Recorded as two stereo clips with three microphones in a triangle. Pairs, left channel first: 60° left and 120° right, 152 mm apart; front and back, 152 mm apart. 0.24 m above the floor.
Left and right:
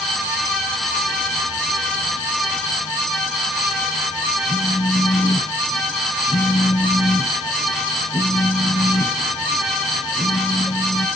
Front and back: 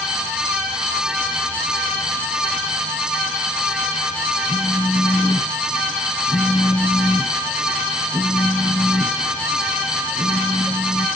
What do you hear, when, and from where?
4.5 s a phone buzzing: 65° left, 1.0 m